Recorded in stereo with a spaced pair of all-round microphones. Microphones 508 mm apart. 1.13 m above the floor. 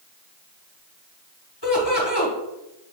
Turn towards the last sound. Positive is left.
turn(degrees=50)  # may be behind; listen again after turning